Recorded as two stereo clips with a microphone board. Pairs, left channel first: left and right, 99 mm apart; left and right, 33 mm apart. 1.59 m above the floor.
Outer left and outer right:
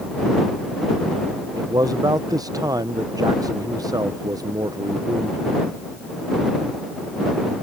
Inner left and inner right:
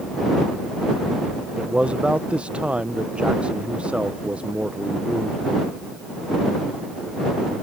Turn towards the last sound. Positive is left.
turn(degrees=-40)  # may be behind; listen again after turning